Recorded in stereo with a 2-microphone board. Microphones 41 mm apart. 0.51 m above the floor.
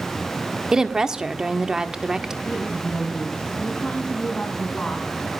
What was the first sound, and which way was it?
A woman speaking, 15° right (ahead or behind).